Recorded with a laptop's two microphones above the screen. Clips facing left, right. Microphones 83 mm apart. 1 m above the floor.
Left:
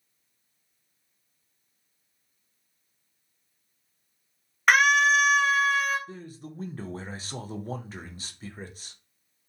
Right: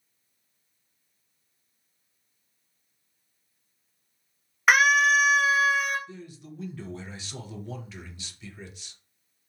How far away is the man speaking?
About 0.5 m.